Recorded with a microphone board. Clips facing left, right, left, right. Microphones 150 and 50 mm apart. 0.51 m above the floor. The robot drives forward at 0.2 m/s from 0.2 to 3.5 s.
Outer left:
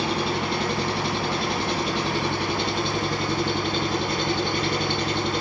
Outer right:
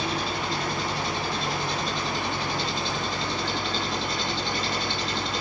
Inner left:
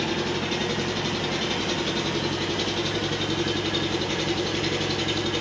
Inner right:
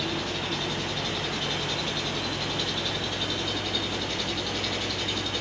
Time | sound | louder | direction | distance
0.0 | an engine running | outer left 4 dB, inner left 4 dB | 60° left (ahead or behind) | 1.2 m